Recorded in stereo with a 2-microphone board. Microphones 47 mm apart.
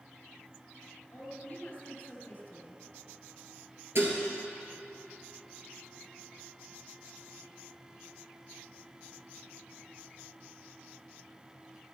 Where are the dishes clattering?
60° right (ahead or behind), 1.9 m.